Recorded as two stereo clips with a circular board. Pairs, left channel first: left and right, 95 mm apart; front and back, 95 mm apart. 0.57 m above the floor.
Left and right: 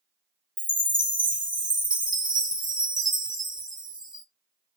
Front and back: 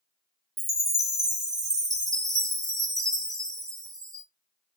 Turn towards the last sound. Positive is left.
turn(degrees=-130)